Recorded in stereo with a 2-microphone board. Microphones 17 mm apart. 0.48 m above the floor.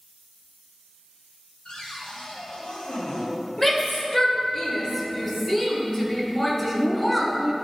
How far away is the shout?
About 1.6 m.